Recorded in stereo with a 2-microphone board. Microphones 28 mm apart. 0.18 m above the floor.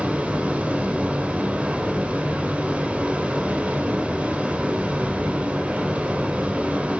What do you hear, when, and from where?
0.0 s running water: 60° right (ahead or behind), 5.5 m